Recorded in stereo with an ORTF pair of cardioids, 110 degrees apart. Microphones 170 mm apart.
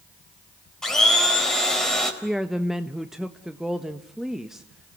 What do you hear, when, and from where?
0.8 s a blender: 5° left, 4 m
2.2 s a woman speaking: straight ahead, 1.2 m